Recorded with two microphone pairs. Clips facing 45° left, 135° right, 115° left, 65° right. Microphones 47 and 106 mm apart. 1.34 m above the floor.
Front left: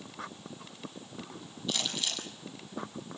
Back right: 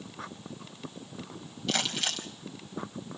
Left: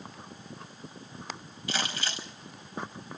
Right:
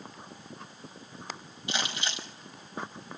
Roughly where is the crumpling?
Behind right.